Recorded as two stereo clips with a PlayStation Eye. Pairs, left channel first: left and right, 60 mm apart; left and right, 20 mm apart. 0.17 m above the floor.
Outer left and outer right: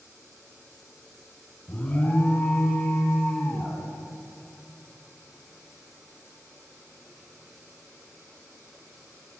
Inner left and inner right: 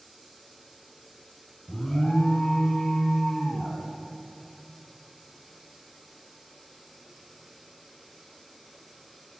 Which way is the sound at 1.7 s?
20° left (ahead or behind).